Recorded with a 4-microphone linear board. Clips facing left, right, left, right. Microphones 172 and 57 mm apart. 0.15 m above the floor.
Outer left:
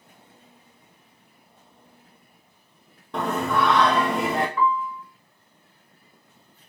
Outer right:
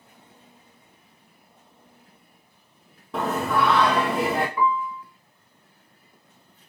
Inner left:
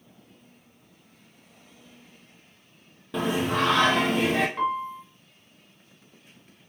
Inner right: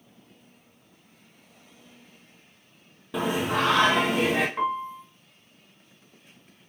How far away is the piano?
About 0.9 m.